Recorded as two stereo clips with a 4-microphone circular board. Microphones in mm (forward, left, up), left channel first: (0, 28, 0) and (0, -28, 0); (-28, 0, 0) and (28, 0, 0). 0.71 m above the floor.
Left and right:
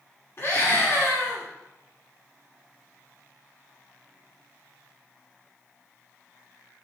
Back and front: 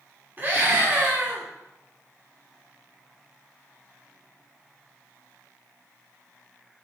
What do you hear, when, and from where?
0.4 s a scream: 50° left, 1.9 m